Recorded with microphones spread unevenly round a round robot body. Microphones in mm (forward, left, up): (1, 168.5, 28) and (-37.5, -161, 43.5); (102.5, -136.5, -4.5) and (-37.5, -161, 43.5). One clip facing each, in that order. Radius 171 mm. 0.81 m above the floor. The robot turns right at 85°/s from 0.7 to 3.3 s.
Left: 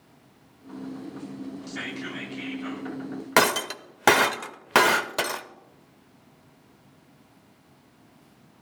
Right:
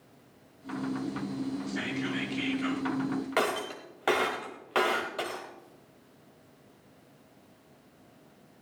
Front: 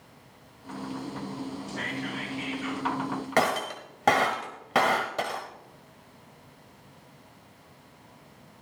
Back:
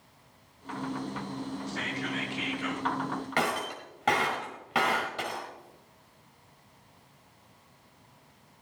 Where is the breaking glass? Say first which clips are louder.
Left 5 dB, front 6 dB; 85° left, 0.7 m.